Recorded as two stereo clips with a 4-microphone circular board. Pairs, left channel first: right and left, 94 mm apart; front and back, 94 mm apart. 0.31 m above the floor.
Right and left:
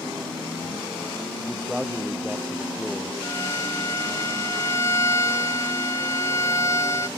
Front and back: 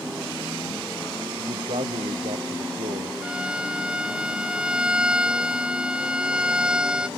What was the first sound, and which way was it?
A man speaking, 175° left.